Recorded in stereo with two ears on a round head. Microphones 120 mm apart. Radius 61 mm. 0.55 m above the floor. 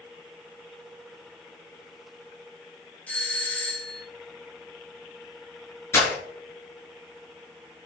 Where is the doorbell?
10° left (ahead or behind), 2 m.